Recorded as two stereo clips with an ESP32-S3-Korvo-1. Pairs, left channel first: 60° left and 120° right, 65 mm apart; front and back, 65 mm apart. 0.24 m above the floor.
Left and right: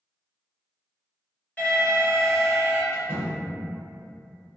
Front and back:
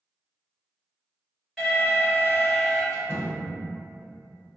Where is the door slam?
25° left, 1.6 m.